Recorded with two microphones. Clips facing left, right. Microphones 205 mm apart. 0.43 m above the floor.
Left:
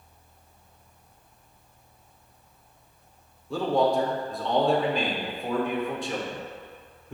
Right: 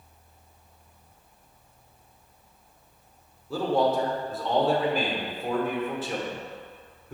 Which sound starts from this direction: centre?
A man speaking, at 3.5 s.